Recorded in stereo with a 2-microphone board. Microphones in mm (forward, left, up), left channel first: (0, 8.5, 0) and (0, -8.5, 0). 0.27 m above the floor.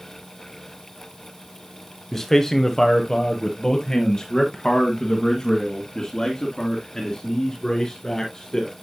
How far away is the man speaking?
About 1.0 m.